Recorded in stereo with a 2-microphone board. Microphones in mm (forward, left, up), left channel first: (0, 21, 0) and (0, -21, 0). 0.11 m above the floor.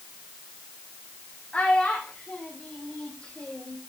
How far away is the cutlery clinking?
No cutlery clinking in this recording.